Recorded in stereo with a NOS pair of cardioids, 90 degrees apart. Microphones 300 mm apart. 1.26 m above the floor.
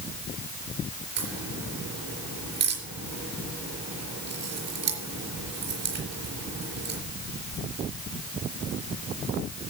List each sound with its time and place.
1.2 s a crack: 65° right, 4.5 m